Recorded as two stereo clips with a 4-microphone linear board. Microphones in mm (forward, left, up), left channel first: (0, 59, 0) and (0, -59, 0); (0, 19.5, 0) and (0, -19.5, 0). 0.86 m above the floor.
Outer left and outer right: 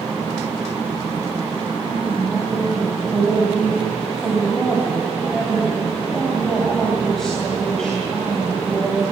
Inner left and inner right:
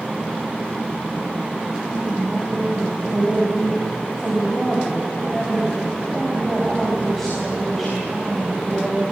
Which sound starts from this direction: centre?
A woman speaking, at 1.8 s.